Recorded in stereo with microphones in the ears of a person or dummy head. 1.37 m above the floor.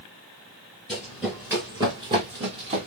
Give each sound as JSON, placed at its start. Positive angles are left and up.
{"t": 0.9, "sound": "running footsteps", "side_deg": 5, "distance_m": 1.4}